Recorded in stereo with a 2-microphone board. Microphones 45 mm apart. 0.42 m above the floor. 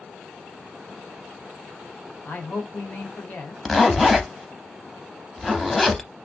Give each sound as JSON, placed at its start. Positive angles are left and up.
{"t": 2.2, "sound": "a man speaking", "side_deg": 50, "distance_m": 1.2}
{"t": 3.6, "sound": "a zipper", "side_deg": 5, "distance_m": 0.5}